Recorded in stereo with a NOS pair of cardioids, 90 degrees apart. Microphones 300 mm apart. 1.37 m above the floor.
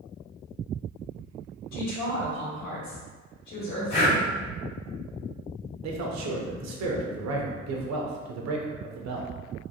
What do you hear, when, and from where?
1.7 s a woman speaking: 70° left, 1.7 m
3.9 s breathing: 55° left, 1.7 m
5.8 s a man speaking: 60° right, 0.9 m